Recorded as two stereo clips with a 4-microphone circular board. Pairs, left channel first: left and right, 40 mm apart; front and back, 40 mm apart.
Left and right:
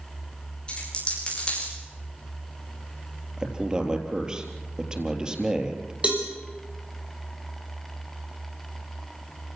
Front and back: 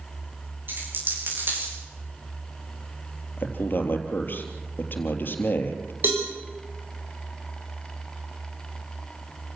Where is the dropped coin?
155° left, 10 m.